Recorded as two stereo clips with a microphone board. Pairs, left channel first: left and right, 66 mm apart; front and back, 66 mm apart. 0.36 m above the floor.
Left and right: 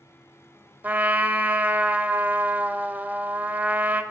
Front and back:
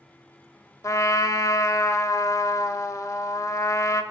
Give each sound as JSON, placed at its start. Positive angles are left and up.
{"t": 0.8, "sound": "a trumpet", "azimuth_deg": -25, "distance_m": 0.5}